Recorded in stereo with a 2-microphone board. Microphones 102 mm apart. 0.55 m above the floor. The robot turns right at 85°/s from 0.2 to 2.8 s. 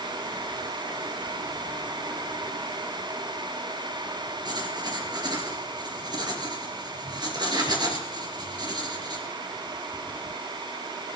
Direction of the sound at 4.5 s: 45° right (ahead or behind).